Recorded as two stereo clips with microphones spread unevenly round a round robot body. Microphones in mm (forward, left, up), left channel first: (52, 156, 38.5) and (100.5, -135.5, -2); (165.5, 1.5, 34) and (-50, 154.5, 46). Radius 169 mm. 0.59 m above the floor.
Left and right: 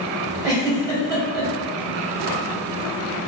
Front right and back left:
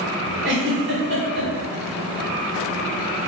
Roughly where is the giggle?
Behind.